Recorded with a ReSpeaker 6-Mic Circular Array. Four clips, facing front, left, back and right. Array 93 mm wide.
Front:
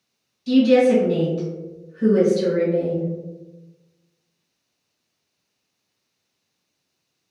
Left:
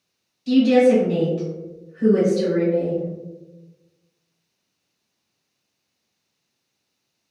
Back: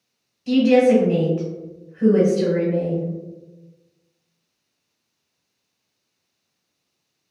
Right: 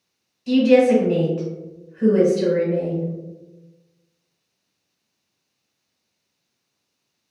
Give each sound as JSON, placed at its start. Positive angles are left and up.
{"t": 0.5, "sound": "a woman speaking", "azimuth_deg": -155, "distance_m": 1.2}